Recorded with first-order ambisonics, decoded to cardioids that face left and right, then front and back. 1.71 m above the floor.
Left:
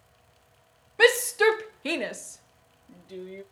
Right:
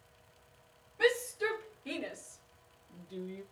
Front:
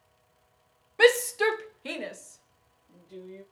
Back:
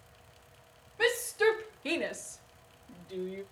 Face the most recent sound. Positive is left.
turn(degrees=125)